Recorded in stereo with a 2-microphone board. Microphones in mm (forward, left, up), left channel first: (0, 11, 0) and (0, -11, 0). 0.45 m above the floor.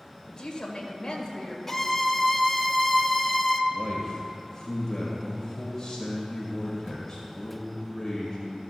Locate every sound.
0.3 s a woman speaking: 25° left (ahead or behind), 2 m
1.7 s a violin: 10° left (ahead or behind), 0.6 m
3.7 s a man speaking: 30° left (ahead or behind), 1.9 m